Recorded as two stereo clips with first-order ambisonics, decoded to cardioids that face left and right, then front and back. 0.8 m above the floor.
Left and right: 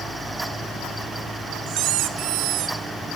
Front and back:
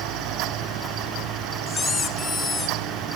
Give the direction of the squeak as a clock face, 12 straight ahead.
2 o'clock.